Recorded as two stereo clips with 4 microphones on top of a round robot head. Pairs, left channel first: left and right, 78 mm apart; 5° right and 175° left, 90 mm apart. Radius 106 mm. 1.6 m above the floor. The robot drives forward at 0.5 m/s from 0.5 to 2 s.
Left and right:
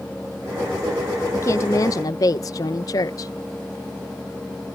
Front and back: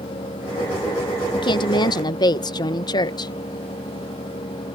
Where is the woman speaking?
30° left; by 3.3 s 40° left.